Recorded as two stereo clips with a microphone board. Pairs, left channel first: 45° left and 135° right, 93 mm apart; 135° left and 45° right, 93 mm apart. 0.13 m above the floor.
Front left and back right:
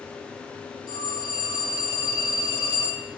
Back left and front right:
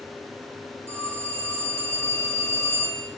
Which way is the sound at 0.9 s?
10° left.